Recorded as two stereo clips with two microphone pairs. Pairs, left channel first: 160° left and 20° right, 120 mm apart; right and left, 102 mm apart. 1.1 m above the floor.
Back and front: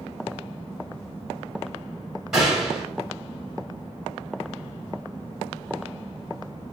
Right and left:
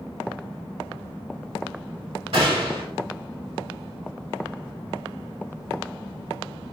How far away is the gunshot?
About 2.5 m.